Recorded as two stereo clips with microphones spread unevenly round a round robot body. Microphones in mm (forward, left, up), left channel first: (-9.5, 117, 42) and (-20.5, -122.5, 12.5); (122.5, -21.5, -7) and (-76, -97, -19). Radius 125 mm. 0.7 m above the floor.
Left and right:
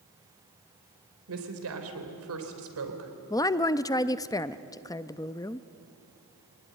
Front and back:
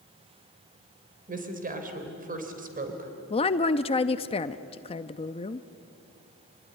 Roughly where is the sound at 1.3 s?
Right.